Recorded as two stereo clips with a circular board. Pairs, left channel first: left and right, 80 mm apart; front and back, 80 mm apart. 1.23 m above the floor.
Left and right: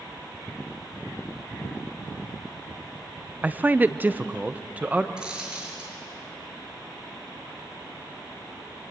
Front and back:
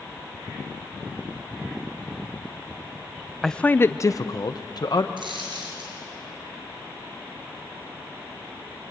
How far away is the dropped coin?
About 6.5 m.